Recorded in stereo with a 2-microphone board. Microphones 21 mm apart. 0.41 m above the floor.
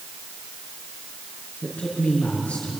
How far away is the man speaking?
About 6.5 m.